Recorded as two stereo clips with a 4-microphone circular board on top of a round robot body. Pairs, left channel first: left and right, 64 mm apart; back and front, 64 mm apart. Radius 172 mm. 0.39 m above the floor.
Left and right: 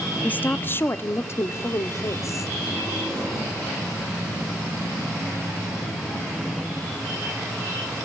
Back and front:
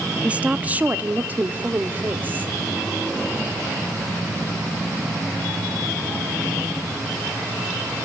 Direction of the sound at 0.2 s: 50° left.